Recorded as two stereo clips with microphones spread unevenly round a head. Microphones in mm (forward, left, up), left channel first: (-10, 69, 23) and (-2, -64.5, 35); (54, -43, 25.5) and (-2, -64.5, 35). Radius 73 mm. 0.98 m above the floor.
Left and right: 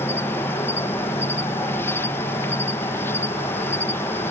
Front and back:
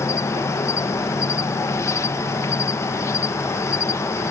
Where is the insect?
25° left.